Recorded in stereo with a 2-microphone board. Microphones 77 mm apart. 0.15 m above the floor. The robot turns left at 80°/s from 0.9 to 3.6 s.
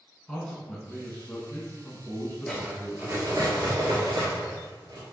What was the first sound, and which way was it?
A man speaking, 15° left (ahead or behind).